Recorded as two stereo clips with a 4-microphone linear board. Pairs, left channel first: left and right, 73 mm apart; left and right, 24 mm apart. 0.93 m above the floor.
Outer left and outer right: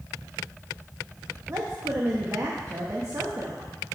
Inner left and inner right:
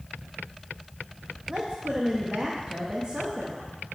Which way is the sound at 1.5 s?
40° right (ahead or behind).